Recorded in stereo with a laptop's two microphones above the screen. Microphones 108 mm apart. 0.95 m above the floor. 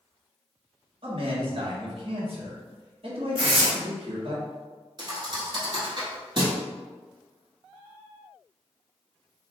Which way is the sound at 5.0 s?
45° right (ahead or behind).